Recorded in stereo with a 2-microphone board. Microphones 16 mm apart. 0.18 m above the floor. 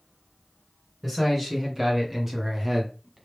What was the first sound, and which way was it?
A man speaking, 15° right (ahead or behind).